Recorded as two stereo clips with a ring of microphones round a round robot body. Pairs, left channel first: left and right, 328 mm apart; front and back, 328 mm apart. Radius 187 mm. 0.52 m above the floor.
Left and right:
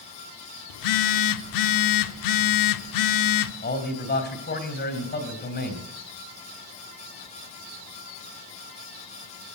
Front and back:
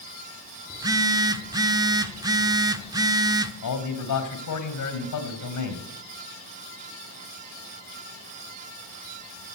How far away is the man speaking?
About 2.5 m.